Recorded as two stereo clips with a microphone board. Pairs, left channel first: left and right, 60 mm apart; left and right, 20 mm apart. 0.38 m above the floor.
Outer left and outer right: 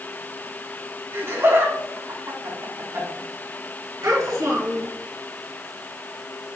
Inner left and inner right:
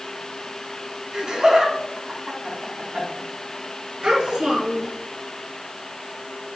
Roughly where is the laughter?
Right.